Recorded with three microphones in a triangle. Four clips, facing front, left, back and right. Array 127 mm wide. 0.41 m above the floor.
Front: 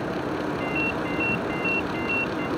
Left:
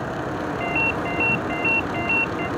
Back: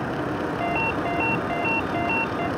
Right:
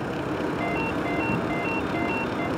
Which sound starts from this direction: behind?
A ringtone, at 0.6 s.